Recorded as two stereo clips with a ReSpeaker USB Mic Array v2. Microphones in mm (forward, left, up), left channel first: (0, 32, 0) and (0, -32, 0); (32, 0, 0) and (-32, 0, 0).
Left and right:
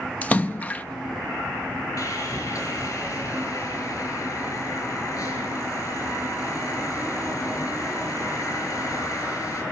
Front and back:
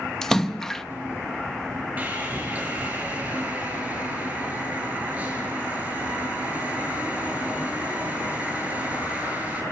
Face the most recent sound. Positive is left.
turn(degrees=115)